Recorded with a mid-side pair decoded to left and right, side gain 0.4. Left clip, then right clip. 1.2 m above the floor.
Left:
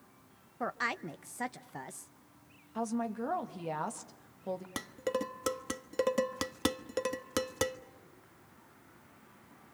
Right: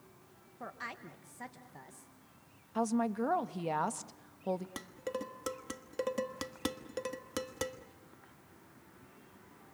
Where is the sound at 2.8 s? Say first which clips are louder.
Right 3 dB; 25° right, 1.6 m.